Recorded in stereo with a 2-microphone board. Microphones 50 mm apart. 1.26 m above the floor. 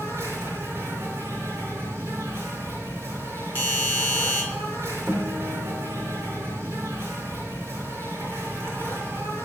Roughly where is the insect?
Right.